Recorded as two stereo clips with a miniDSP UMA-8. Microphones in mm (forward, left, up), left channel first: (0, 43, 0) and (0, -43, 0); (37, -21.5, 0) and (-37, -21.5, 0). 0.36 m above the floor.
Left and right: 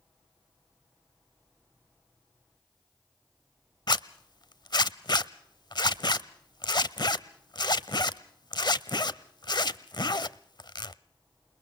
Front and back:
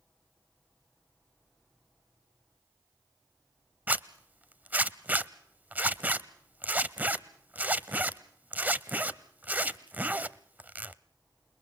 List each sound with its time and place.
3.9 s a zipper: 115° left, 0.7 m